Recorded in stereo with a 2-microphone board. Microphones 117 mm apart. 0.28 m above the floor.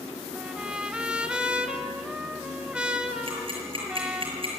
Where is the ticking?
50° right (ahead or behind), 6.5 m.